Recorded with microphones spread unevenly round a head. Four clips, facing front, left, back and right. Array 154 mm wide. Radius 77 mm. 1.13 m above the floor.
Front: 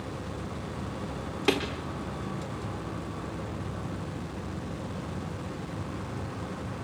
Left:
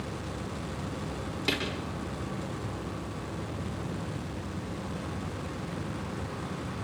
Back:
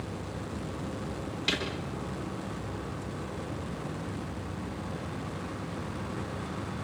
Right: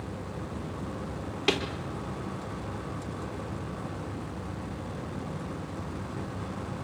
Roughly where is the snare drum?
Ahead.